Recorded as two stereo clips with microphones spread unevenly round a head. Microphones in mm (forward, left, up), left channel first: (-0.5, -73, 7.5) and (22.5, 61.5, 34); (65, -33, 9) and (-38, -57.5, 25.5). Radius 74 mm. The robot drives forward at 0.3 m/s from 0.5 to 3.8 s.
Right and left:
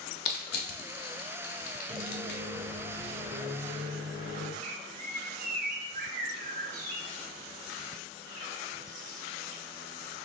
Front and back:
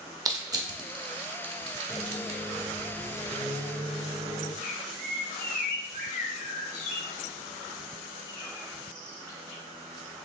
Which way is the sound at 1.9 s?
95° left.